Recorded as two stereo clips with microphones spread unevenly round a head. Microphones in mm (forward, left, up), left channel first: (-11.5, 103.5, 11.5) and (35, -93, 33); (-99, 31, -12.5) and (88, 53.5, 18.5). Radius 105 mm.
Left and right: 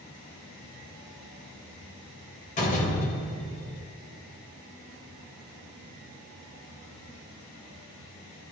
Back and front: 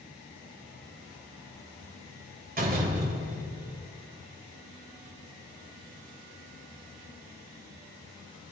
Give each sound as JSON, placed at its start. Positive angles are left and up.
{"t": 2.6, "sound": "a door slam", "azimuth_deg": 50, "distance_m": 3.0}